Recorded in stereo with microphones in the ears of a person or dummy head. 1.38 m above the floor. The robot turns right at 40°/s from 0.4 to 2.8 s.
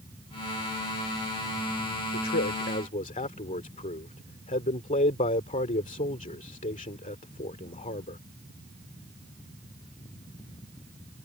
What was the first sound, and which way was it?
A man speaking, 60° left (ahead or behind).